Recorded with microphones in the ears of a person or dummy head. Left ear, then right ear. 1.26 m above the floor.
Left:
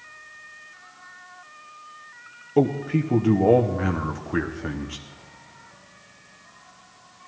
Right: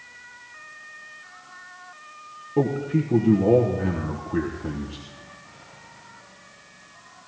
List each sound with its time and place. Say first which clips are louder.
2.6 s a man speaking: left 2 dB; 45° left (ahead or behind), 0.9 m